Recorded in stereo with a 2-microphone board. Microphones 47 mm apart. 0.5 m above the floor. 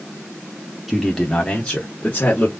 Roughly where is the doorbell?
No doorbell in this recording.